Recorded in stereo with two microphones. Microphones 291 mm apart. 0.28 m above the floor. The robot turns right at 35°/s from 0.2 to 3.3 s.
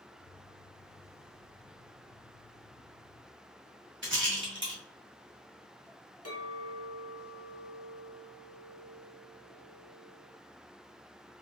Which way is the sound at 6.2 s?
60° left (ahead or behind).